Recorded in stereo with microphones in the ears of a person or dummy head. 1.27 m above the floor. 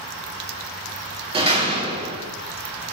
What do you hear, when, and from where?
1.3 s a door slam: 25° right (ahead or behind), 2 m